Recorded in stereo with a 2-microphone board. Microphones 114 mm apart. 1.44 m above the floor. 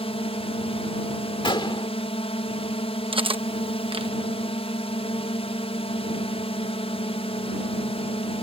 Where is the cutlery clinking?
50° right (ahead or behind).